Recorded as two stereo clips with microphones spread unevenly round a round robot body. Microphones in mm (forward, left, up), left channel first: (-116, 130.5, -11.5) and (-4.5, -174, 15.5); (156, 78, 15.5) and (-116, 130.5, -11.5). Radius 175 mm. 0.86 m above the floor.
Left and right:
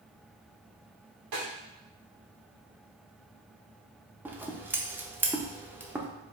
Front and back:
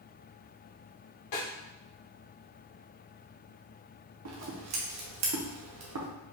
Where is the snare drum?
35° right, 1.5 m.